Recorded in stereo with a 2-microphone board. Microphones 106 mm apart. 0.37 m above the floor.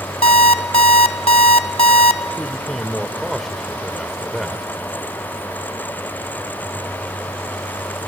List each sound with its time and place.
0.2 s an alarm clock: 70° left (ahead or behind), 0.9 m
2.4 s a man speaking: centre (ahead or behind), 1.1 m